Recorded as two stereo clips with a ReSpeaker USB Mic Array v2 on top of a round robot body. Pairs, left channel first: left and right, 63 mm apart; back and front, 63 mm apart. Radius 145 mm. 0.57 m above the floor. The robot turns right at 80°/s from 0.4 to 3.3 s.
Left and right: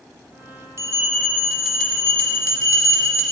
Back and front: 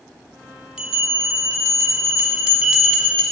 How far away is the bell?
About 1.5 m.